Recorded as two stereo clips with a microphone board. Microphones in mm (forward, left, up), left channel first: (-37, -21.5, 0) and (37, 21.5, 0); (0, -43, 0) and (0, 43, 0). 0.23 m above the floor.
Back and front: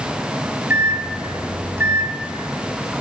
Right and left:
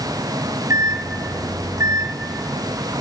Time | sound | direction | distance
0.7 | a microwave | 75° left | 1.5 m